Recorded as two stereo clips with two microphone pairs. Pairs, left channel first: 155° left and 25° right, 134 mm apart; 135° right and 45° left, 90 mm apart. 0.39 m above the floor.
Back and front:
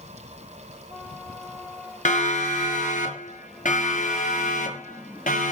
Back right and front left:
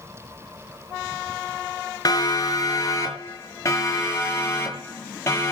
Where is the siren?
175° left, 5.5 m; by 5.5 s 160° left, 10 m.